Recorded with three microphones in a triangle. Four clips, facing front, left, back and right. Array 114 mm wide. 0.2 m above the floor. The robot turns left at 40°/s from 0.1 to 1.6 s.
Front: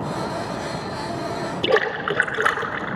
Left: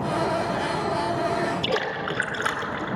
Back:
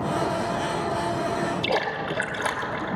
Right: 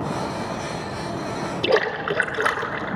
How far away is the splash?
About 1.0 m.